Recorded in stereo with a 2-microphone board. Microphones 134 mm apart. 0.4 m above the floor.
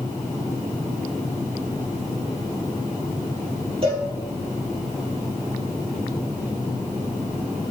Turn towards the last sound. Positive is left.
turn(degrees=-45)  # may be behind; listen again after turning